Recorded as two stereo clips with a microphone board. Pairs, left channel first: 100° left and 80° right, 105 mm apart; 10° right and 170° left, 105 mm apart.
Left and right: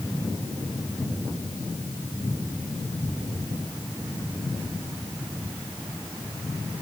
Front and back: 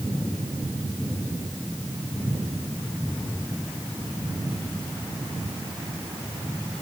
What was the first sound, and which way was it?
Only background noise.